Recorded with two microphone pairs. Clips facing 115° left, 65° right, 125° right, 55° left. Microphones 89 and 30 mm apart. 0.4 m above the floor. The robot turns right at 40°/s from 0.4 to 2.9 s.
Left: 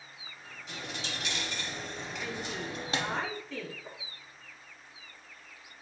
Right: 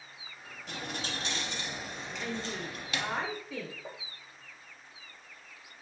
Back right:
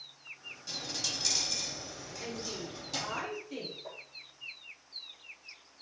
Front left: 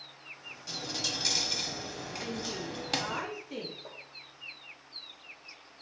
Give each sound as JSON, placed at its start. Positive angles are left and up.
{"t": 0.7, "sound": "a dropped coin", "azimuth_deg": -30, "distance_m": 0.6}
{"t": 2.2, "sound": "a woman speaking", "azimuth_deg": -20, "distance_m": 1.0}
{"t": 3.9, "sound": "tapping", "azimuth_deg": -30, "distance_m": 1.9}